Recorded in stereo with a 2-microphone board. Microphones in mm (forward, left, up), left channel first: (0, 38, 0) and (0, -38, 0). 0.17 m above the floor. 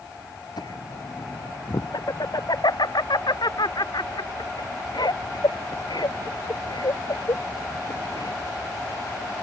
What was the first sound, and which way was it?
Laughter, 70° left (ahead or behind).